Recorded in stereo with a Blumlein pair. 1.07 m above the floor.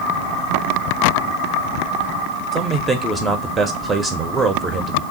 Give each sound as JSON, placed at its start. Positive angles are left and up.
{"t": 2.5, "sound": "a man speaking", "azimuth_deg": -15, "distance_m": 0.6}